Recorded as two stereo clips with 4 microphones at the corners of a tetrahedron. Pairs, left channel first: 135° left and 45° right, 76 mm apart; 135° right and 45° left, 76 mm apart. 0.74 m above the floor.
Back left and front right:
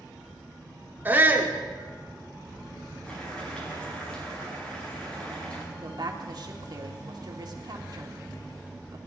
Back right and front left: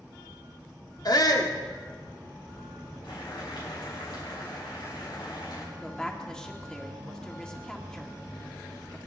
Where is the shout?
110° right, 1.8 m.